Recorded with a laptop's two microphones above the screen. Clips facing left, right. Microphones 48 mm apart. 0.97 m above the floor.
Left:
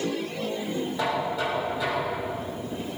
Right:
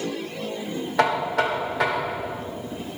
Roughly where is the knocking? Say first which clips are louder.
Right 8 dB; right.